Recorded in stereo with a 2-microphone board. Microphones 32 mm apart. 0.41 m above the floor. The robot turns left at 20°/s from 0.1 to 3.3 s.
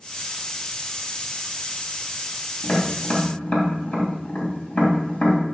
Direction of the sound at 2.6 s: 60° left (ahead or behind).